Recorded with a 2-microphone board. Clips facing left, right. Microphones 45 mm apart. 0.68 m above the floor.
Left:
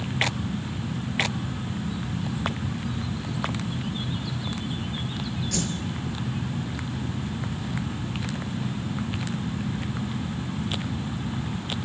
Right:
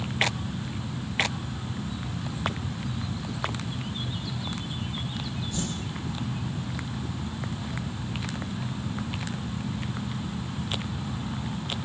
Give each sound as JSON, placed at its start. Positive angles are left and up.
{"t": 5.5, "sound": "a whoosh", "side_deg": 80, "distance_m": 6.0}